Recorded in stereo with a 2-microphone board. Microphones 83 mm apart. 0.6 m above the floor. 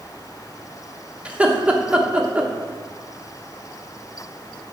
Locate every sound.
1.2 s laughter: 15° right (ahead or behind), 1.1 m